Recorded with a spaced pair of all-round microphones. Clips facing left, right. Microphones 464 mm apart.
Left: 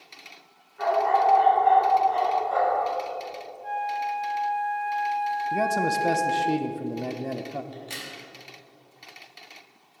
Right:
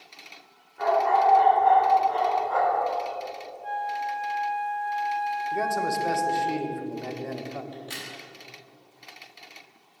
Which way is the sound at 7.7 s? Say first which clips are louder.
Even; 30° right (ahead or behind).